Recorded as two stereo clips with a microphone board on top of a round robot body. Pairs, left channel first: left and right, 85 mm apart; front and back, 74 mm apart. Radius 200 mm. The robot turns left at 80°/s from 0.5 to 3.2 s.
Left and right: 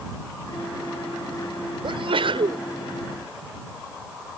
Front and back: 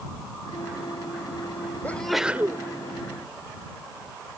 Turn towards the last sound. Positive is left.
turn(degrees=-175)